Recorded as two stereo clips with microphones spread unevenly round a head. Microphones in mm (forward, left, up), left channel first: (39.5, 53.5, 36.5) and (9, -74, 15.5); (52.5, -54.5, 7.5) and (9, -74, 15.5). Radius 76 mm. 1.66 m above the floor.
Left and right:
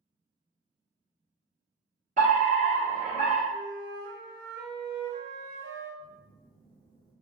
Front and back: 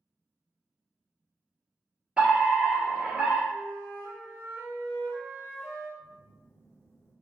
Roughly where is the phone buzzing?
Ahead left.